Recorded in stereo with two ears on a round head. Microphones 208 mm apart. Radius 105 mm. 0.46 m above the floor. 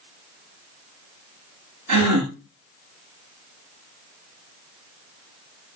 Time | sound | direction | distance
1.9 | a gasp | 80° right | 6 m